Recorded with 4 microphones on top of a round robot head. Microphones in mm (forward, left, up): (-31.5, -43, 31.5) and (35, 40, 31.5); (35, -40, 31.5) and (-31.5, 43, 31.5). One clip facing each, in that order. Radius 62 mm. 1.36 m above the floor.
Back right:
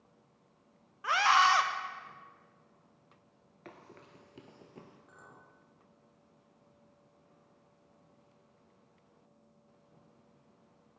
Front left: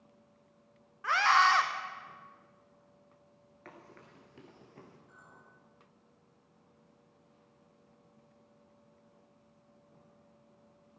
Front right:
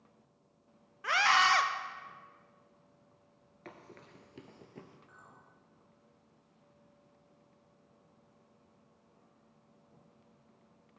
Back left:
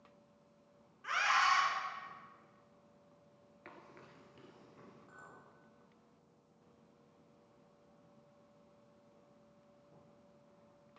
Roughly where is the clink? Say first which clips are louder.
Back right 1 dB, back left 1 dB; behind.